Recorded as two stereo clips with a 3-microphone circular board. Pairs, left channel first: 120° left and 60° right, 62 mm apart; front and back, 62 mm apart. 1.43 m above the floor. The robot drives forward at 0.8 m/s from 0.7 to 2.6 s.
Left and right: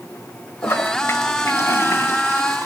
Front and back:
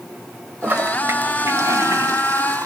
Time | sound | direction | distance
0.6 | a toilet flushing | 140° left | 1.5 m